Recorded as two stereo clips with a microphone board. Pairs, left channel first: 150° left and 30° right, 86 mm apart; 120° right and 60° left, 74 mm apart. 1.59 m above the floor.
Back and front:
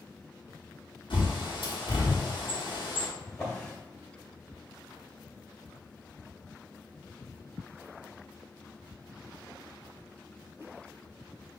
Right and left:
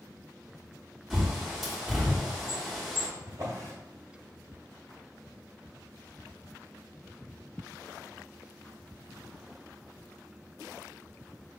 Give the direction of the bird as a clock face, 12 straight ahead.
7 o'clock.